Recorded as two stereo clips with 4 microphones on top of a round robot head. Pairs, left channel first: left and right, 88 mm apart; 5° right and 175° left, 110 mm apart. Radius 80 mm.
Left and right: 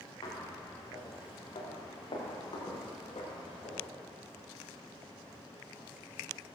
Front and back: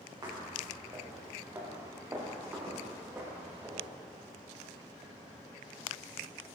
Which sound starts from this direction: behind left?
Footsteps, at 0.2 s.